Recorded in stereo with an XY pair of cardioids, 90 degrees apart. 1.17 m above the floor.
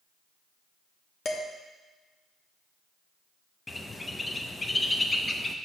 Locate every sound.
1.2 s dishes clattering: 55° left, 1.0 m
3.7 s a bird: 25° left, 0.6 m